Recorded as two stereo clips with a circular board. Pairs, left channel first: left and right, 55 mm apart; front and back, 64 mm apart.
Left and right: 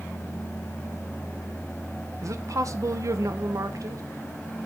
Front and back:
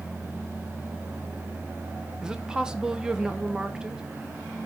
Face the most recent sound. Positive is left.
turn(degrees=-100)